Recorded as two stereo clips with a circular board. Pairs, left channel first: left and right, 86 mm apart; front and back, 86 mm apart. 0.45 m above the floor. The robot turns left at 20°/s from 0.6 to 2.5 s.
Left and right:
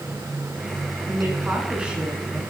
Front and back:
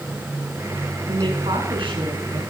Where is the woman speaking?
150° right, 5.5 m; by 2.4 s straight behind, 5.5 m.